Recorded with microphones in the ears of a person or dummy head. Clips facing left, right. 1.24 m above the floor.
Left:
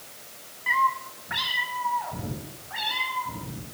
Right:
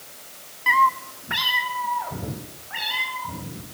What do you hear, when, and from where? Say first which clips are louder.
0.7 s a cat meowing: right 5 dB; 60° right (ahead or behind), 0.8 m; by 3.6 s 45° right (ahead or behind), 5 m